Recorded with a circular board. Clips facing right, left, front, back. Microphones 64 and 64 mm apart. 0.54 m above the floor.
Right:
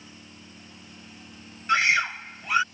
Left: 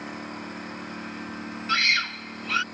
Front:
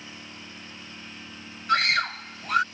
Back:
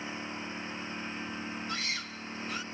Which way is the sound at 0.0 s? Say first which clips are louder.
Left 13 dB, back 5 dB; 115° left.